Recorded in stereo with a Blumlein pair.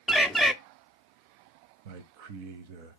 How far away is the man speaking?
About 1.0 m.